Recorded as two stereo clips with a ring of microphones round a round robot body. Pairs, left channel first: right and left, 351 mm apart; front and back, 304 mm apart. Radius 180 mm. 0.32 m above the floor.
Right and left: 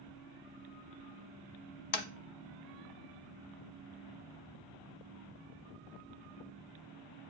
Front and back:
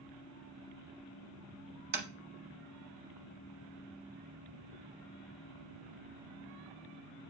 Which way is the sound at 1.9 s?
115° right.